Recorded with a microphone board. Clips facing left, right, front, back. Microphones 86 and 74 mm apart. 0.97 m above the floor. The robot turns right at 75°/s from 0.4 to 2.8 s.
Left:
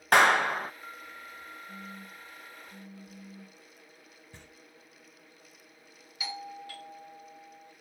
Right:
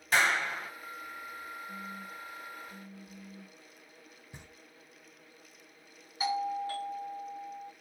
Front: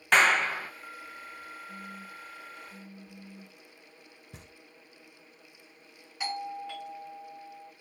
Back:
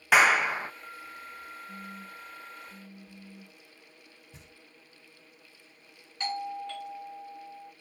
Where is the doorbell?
75° right, 0.9 m.